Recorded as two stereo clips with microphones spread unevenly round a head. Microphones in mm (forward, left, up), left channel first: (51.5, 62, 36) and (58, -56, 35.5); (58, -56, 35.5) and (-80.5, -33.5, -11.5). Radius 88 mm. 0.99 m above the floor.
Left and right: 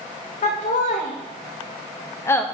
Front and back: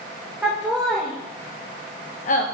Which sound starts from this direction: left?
Laughter, at 0.4 s.